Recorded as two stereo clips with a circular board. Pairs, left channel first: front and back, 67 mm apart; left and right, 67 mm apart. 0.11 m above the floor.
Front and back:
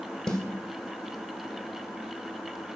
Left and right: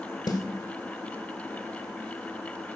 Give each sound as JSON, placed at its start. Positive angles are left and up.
{"t": 0.3, "sound": "a snare drum", "azimuth_deg": 80, "distance_m": 1.3}